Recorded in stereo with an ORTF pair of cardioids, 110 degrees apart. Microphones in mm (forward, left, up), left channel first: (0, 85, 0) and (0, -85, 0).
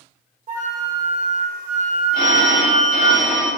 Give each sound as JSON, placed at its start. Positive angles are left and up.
{"t": 0.5, "sound": "a flute", "azimuth_deg": -55, "distance_m": 0.9}
{"t": 2.1, "sound": "a phone ringing", "azimuth_deg": 70, "distance_m": 1.3}